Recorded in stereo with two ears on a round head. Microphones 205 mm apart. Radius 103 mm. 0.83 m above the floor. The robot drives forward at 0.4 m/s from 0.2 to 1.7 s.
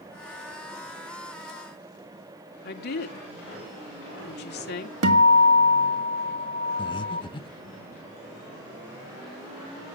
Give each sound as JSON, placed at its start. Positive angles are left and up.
{"t": 2.6, "sound": "a woman speaking", "side_deg": 45, "distance_m": 2.0}
{"t": 5.0, "sound": "a guitar", "side_deg": -70, "distance_m": 1.8}
{"t": 6.8, "sound": "breathing", "side_deg": 20, "distance_m": 0.8}